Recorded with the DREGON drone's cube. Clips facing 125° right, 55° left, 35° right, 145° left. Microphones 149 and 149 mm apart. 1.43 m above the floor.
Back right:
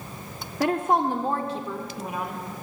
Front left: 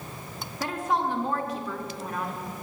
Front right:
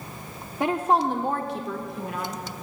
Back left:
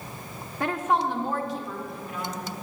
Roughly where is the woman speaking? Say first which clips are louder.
Back right 5 dB, front right 3 dB; right.